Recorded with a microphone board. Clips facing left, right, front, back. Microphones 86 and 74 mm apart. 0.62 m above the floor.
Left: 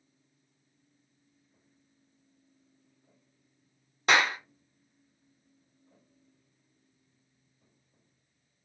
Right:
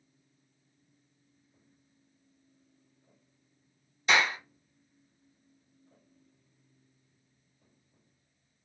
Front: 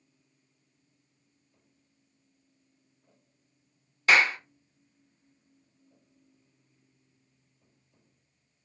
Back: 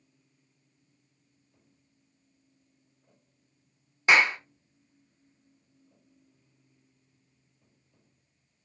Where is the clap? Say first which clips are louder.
Left 2 dB, back 1 dB; 115° left, 1.1 m.